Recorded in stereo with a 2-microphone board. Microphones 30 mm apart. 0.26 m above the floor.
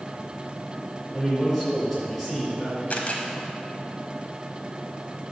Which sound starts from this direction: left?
A camera shutter, at 2.9 s.